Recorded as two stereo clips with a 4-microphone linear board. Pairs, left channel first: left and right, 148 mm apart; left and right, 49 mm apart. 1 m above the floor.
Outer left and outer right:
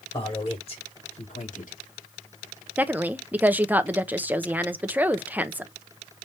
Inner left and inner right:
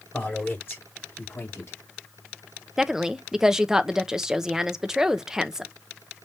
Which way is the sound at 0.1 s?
35° left (ahead or behind).